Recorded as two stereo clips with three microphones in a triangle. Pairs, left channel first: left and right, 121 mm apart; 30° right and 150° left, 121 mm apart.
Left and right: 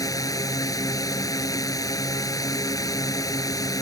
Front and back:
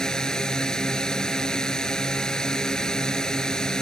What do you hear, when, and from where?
0.0 s a drone: 50° left